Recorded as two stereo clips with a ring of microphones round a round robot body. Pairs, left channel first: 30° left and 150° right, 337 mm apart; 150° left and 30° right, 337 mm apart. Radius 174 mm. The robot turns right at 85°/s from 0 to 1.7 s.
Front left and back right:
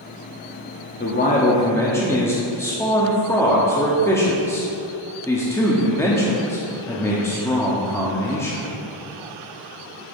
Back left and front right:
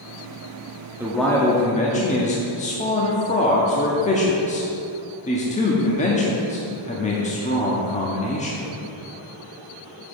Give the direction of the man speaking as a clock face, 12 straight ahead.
10 o'clock.